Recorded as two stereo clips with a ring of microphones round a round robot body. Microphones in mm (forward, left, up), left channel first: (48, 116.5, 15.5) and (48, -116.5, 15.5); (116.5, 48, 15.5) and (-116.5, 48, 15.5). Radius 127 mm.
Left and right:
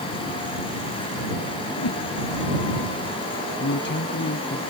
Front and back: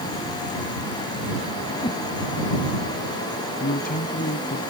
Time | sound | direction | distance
1.8 | a whoosh | 70° left | ?
3.6 | a man speaking | 50° left | ?